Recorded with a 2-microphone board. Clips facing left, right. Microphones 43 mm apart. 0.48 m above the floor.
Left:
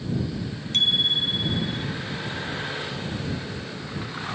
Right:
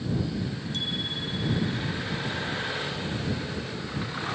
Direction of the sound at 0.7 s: 65° left (ahead or behind).